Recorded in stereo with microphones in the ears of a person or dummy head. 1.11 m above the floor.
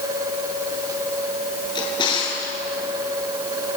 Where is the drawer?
25° left (ahead or behind), 5.5 m.